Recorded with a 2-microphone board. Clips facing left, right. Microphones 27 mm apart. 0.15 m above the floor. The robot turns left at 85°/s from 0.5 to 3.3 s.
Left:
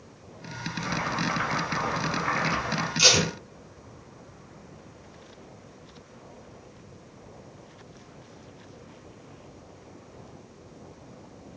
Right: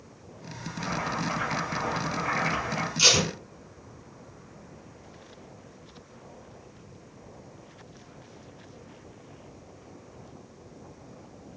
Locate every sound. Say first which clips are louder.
0.7 s boiling: left 1 dB; 175° left, 1.8 m; by 2.9 s 15° right, 1.8 m
3.0 s tape being pulled: left 1 dB; 10° left (ahead or behind), 1.7 m; by 3.3 s 20° left (ahead or behind), 1.7 m